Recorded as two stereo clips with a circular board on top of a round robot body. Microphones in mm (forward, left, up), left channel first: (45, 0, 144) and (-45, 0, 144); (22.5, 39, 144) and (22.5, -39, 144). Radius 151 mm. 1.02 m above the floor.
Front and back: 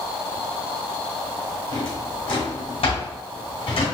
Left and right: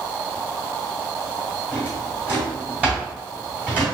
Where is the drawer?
15° right, 1.8 m.